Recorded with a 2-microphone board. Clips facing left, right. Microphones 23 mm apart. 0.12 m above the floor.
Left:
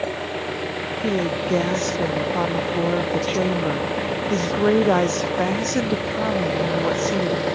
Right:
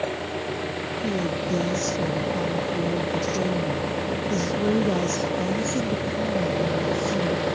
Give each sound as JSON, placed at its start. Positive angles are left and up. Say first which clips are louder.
{"t": 0.0, "sound": "an engine running", "louder": "left 2 dB", "side_deg": 15}
{"t": 1.0, "sound": "a woman speaking", "louder": "left 5 dB", "side_deg": 60}